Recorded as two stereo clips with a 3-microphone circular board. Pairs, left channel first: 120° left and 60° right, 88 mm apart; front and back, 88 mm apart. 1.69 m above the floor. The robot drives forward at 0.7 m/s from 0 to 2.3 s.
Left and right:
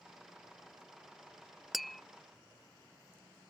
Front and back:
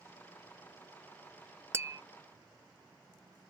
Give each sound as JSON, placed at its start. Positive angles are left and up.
{"t": 1.7, "sound": "tapping", "azimuth_deg": -145}